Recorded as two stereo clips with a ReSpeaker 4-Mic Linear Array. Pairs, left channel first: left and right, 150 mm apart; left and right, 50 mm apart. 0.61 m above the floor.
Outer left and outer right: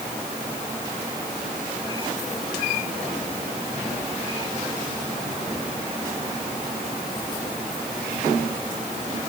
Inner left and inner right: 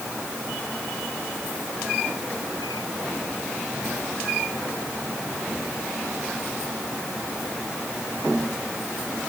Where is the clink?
I don't hear a clink.